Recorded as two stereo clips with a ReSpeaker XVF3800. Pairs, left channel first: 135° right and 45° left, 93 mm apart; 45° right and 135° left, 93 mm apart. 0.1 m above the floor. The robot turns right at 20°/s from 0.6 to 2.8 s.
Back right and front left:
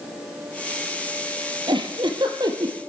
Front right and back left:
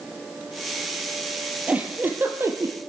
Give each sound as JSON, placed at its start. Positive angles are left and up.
{"t": 1.7, "sound": "a giggle", "azimuth_deg": 60, "distance_m": 2.0}